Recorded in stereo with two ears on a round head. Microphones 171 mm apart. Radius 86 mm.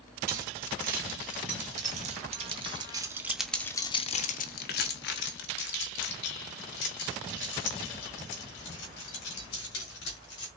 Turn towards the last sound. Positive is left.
turn(degrees=65)  # may be behind; listen again after turning